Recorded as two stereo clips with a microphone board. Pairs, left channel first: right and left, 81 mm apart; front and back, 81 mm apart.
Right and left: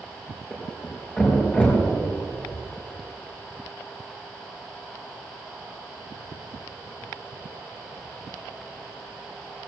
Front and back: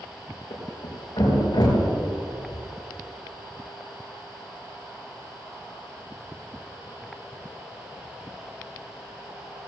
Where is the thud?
25° right, 5 m.